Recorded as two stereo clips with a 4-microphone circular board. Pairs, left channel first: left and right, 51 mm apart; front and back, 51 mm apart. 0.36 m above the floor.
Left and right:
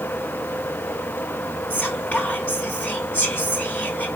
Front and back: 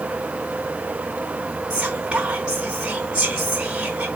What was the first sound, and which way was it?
Whispering, 125° left.